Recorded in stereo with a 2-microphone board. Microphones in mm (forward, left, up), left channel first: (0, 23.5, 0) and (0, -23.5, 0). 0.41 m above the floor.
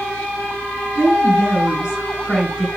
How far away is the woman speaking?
About 5 m.